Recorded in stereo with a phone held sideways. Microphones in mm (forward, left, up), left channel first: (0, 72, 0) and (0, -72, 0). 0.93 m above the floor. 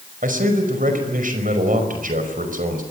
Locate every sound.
0.2 s a man speaking: 70° right (ahead or behind), 5 m